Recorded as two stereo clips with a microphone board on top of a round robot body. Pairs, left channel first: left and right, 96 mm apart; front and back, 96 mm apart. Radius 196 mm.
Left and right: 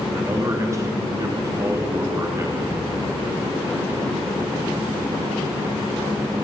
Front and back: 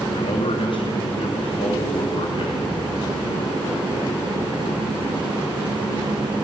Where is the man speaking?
30° right, 1.9 m.